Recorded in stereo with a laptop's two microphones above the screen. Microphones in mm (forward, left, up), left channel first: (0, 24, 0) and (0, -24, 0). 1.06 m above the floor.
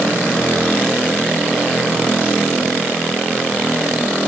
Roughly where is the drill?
I don't hear a drill.